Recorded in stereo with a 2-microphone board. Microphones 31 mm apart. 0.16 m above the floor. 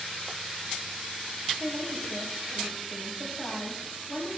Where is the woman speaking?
5° left (ahead or behind), 5.5 m.